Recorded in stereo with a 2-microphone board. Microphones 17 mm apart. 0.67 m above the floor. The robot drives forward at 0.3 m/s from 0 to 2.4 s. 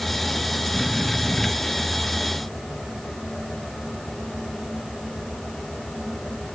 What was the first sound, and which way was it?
Only background noise.